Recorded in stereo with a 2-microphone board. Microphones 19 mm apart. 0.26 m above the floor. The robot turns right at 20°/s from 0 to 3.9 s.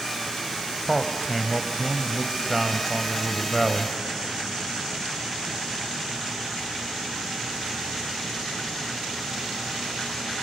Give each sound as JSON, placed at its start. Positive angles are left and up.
{"t": 0.8, "sound": "a man speaking", "side_deg": -20, "distance_m": 0.9}